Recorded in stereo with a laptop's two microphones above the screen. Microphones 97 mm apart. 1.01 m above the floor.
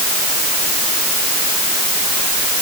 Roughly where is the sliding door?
I don't hear a sliding door.